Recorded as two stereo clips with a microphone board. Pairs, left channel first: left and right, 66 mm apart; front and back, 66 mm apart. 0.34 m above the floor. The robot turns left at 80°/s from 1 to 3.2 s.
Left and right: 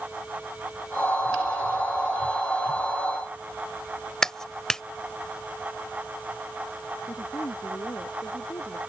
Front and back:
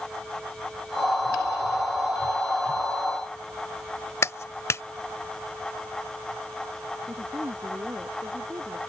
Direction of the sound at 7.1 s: 125° left.